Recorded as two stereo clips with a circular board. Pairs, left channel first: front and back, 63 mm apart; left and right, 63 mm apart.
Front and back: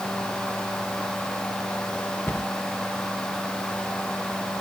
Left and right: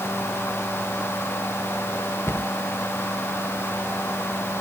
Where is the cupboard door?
50° left, 1.1 m.